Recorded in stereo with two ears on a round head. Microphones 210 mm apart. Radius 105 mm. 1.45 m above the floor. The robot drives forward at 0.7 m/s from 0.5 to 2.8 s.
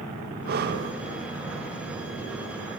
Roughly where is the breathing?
Right.